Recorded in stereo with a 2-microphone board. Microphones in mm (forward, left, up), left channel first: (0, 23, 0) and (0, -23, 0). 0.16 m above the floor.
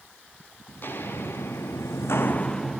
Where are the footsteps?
45° left (ahead or behind), 2 m; by 2.8 s centre (ahead or behind), 1.0 m.